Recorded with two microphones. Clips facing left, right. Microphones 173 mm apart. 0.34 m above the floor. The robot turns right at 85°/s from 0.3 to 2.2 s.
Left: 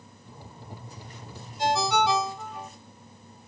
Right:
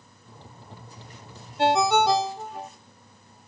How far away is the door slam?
No door slam in this recording.